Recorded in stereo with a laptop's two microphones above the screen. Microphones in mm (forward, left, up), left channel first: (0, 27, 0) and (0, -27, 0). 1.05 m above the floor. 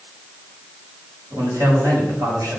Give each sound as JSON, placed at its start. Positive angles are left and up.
{"t": 1.3, "sound": "a man speaking", "side_deg": -65, "distance_m": 6.5}